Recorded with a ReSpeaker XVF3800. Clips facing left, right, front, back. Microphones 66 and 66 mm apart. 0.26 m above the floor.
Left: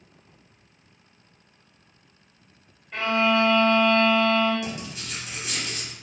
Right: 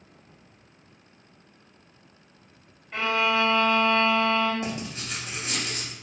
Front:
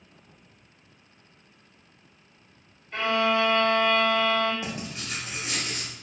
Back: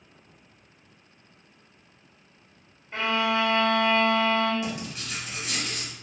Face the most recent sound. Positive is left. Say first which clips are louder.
# right 1 dB, back 1 dB
turn(degrees=-50)